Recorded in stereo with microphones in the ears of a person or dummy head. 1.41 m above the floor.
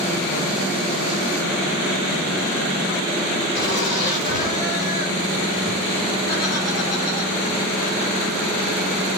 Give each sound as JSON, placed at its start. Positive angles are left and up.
{"t": 3.5, "sound": "laughter", "side_deg": 30, "distance_m": 4.5}